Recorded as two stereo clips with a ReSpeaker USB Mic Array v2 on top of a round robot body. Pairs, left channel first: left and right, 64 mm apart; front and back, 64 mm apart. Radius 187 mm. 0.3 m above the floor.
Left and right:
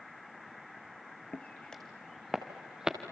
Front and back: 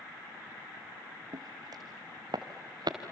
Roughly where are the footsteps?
Behind left.